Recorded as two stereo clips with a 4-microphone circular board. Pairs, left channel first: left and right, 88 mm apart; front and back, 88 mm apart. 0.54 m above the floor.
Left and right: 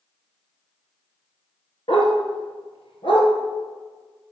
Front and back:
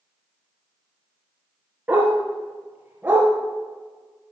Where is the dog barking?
110° left, 2.5 m.